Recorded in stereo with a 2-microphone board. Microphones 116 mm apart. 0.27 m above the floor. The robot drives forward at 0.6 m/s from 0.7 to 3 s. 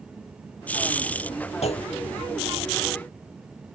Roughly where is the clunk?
Left.